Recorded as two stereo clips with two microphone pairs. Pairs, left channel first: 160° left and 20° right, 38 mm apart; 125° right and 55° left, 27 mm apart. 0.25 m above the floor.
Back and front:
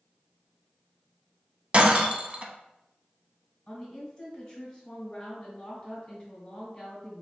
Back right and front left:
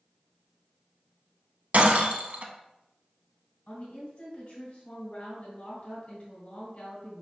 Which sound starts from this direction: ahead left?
Breaking glass, at 1.7 s.